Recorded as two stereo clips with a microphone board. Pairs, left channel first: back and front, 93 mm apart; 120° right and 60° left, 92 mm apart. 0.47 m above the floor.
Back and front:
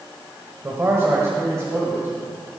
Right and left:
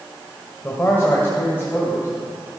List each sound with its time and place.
0.6 s a man speaking: 55° right, 1.7 m